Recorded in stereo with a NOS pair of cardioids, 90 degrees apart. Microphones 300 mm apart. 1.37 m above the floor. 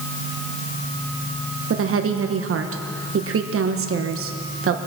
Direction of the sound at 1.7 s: 45° right.